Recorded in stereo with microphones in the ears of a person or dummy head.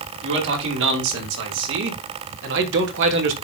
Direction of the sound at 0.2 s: 65° right (ahead or behind).